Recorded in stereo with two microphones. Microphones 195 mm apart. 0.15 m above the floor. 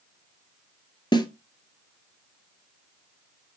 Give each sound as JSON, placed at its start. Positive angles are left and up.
{"t": 1.1, "sound": "a snare drum", "side_deg": 20, "distance_m": 1.6}